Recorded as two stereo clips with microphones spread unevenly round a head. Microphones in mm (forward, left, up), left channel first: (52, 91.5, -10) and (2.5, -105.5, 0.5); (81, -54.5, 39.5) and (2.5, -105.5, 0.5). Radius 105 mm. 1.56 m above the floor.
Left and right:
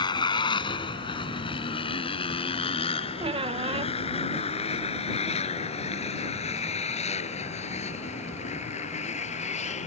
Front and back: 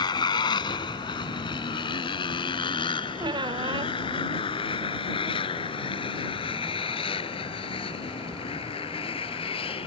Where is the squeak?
110° right.